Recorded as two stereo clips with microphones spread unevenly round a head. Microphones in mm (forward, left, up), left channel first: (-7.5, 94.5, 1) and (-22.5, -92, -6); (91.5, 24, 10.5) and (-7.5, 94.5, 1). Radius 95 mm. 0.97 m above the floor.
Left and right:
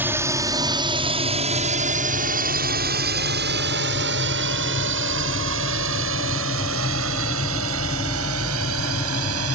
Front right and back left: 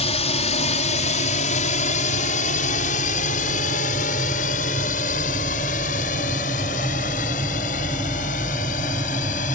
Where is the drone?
15° right; by 9.6 s 85° right.